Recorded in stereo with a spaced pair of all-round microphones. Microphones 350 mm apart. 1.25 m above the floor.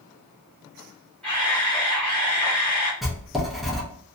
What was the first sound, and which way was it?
A camera shutter, 5° left (ahead or behind).